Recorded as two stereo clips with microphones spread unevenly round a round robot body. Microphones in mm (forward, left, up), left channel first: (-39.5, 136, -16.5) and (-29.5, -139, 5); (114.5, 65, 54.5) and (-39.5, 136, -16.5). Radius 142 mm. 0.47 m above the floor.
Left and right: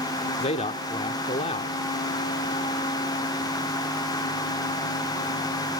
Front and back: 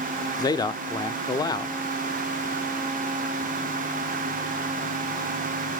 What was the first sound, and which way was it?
A man speaking, 65° left.